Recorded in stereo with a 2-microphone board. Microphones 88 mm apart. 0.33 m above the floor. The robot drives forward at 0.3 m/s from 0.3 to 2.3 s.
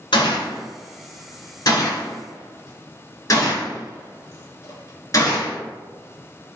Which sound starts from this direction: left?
A gunshot, at 0.1 s.